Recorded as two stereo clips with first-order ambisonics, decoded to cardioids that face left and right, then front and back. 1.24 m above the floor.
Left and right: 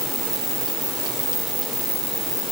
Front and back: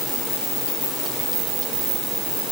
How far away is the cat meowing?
I don't hear a cat meowing.